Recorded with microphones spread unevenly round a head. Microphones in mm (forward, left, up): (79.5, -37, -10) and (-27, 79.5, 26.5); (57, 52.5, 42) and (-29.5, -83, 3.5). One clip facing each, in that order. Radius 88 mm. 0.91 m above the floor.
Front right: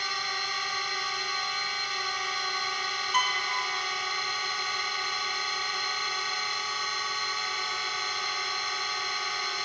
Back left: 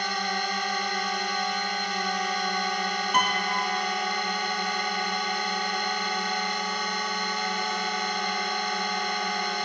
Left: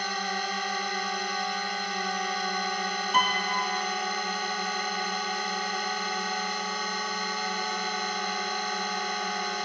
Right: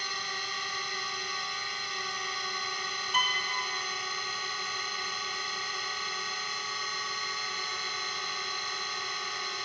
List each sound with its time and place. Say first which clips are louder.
0.0 s a drone: back left 8 dB, left 10 dB; 100° left
3.1 s a piano: back left 4 dB, left 7 dB; 110° left